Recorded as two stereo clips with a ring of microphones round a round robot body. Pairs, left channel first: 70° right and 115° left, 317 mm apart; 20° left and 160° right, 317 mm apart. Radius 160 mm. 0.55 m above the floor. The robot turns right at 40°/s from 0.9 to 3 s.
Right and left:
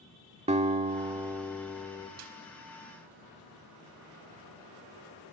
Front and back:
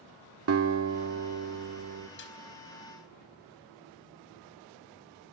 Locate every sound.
0.5 s a guitar: 175° left, 1.5 m; by 2.1 s 135° right, 1.5 m
2.2 s a snare drum: 75° left, 4 m; by 2.4 s 80° left, 4 m